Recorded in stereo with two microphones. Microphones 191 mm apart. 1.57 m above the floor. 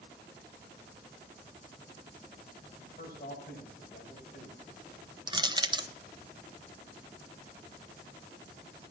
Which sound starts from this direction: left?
A man speaking, at 2.8 s.